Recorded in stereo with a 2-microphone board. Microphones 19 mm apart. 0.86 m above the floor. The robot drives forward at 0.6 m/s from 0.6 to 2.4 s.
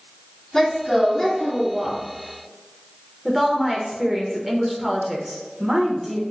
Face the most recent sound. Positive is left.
turn(degrees=-20)  # may be behind; listen again after turning